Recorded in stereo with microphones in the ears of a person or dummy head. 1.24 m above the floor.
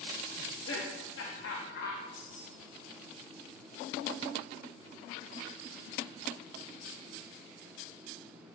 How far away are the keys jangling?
About 3 m.